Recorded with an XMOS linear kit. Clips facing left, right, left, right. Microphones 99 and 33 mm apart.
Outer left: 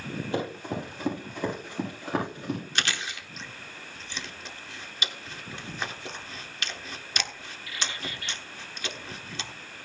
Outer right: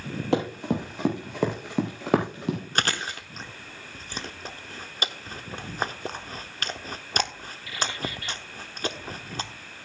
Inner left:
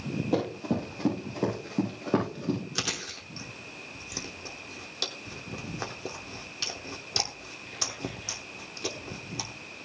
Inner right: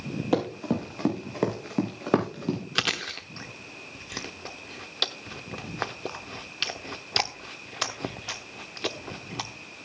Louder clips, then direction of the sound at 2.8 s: Outer right 4 dB, inner right 6 dB; 40° right (ahead or behind).